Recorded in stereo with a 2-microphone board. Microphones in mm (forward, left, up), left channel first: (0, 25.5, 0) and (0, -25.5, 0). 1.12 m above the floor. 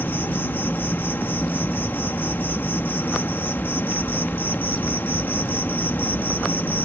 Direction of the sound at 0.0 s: 45° left (ahead or behind).